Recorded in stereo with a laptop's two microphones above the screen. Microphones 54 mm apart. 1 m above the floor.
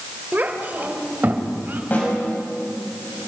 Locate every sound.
0.3 s a child speaking: 35° right (ahead or behind), 2.0 m; by 1.8 s 40° right (ahead or behind), 3 m
1.9 s a snare drum: 35° left (ahead or behind), 6.5 m